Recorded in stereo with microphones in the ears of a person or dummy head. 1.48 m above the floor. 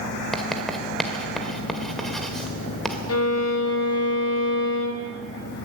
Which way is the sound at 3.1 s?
75° left (ahead or behind).